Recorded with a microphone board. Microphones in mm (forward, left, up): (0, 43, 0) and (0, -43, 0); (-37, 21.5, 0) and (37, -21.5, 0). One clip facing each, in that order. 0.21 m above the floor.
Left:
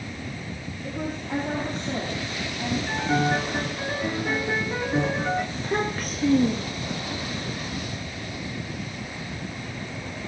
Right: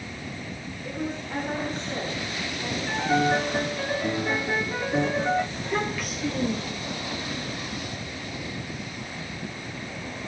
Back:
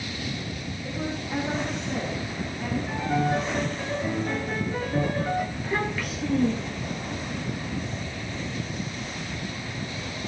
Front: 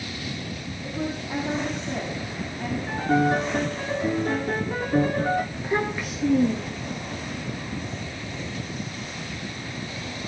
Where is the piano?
10° left, 3.5 m.